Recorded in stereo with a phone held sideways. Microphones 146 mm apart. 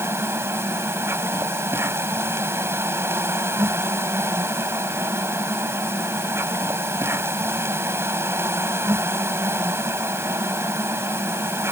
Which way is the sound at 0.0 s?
15° right (ahead or behind).